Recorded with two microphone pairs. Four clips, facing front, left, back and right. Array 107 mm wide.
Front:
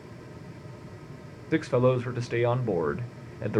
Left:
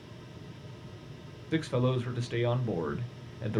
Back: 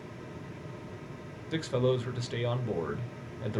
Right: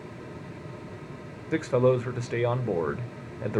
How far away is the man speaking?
About 0.5 m.